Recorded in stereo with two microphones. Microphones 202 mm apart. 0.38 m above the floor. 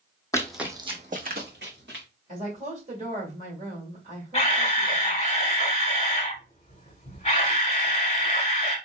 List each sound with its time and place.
0.3 s running footsteps: 15° left (ahead or behind), 0.9 m; by 2.0 s 65° right (ahead or behind), 2 m
2.3 s a woman speaking: 40° right (ahead or behind), 1.7 m
4.3 s a camera shutter: 30° left (ahead or behind), 1.3 m